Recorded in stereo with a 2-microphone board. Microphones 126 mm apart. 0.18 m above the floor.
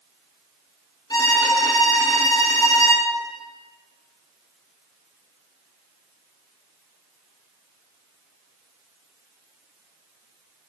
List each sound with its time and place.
1.1 s a violin: 35° left (ahead or behind), 2.5 m